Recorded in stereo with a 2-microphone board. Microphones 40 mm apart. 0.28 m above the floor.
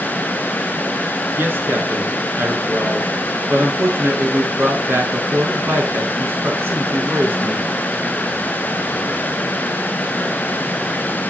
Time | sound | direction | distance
1.3 | a man speaking | 60° right (ahead or behind) | 4.5 m